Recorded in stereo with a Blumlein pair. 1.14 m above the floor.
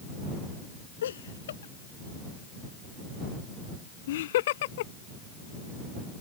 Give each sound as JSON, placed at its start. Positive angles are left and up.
{"t": 1.0, "sound": "laughter", "azimuth_deg": 65}